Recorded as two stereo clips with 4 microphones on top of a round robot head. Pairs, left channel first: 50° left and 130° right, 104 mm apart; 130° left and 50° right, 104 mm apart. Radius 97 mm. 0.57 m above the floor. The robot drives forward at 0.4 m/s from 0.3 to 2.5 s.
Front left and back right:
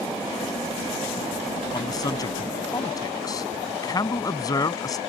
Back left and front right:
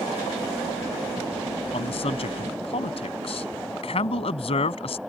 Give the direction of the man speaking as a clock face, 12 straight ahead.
9 o'clock.